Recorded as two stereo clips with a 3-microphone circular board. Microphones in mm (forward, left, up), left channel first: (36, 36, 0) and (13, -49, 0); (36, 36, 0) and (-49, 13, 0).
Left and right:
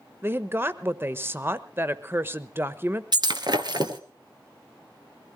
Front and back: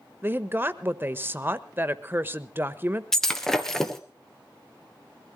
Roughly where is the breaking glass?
Right.